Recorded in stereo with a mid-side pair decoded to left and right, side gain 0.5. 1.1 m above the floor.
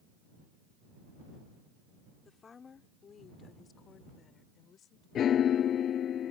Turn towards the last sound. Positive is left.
turn(degrees=55)